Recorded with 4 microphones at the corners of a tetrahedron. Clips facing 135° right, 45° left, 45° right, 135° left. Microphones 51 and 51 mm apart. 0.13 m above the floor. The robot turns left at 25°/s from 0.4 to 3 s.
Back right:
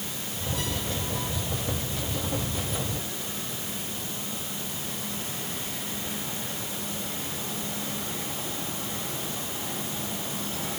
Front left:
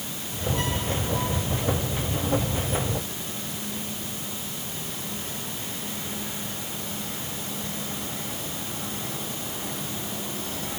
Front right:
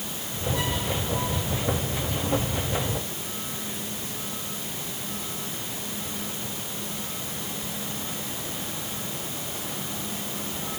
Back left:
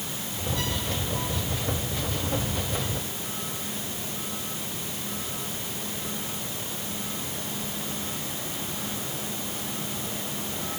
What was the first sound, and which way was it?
Only background noise.